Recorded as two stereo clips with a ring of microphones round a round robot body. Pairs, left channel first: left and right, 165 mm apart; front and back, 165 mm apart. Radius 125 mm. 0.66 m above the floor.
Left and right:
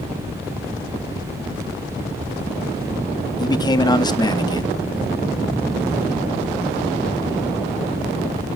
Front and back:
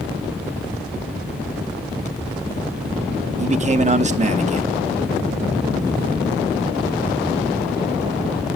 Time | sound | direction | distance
3.4 | a man speaking | 150° left | 0.8 m